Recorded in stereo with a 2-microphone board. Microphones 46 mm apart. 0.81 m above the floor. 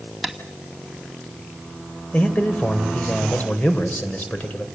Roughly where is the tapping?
Centre.